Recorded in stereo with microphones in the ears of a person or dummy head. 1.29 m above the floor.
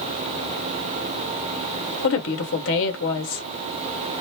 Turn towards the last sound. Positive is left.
turn(degrees=70)  # may be behind; listen again after turning